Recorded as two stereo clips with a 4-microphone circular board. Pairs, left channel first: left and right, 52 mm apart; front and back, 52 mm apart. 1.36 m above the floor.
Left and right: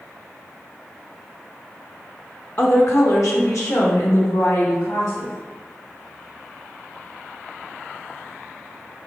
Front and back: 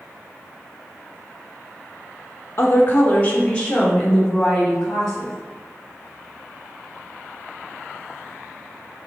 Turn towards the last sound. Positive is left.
turn(degrees=80)